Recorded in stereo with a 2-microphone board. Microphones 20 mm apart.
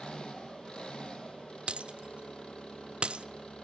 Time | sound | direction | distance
0.0 | an engine running | 50° left (ahead or behind) | 4 m
1.7 | breaking glass | 55° right (ahead or behind) | 0.5 m